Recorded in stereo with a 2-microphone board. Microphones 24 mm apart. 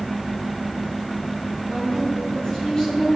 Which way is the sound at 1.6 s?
40° left (ahead or behind).